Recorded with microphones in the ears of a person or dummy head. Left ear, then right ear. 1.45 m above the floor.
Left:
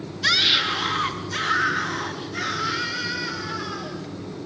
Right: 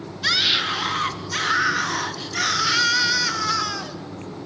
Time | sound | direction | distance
0.2 | a scream | 5° right (ahead or behind) | 3.5 m